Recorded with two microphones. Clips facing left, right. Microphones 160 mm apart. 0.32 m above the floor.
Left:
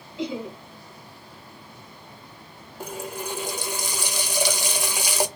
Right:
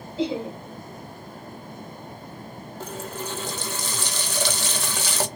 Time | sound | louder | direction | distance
0.2 | laughter | right 4 dB | 30° right (ahead or behind) | 1.2 m
2.8 | a running tap | left 1 dB | 15° left (ahead or behind) | 0.6 m